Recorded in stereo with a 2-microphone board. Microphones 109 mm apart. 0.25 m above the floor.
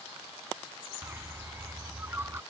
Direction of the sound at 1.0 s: 25° right (ahead or behind).